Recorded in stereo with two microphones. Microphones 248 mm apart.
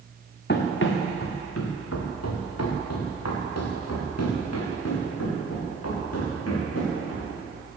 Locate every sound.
0.5 s running footsteps: 45° left (ahead or behind), 2.5 m; by 7.3 s 65° left (ahead or behind), 8.5 m